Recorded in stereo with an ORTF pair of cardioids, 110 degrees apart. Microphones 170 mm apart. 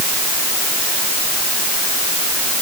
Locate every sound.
Only background noise.